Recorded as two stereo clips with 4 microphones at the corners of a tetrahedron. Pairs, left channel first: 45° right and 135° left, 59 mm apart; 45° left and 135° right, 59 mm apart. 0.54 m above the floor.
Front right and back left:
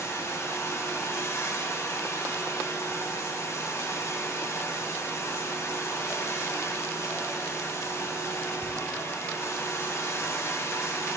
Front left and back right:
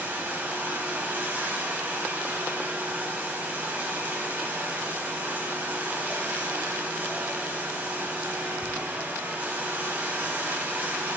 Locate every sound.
0.0 s running water: 75° right, 1.8 m